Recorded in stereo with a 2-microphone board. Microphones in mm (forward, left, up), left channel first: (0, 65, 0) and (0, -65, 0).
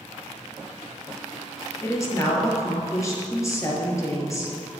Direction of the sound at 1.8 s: 25° left (ahead or behind).